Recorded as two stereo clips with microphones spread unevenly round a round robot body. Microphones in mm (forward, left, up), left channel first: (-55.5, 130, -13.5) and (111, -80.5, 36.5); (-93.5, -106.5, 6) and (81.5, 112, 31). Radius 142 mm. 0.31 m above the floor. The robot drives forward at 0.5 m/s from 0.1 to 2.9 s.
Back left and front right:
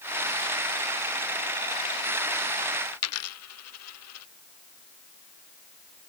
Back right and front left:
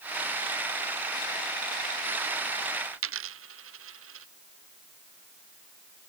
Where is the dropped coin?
95° left.